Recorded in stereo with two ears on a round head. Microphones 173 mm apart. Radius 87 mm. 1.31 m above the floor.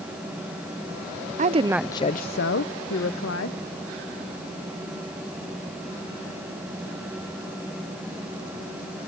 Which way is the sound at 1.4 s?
40° right (ahead or behind).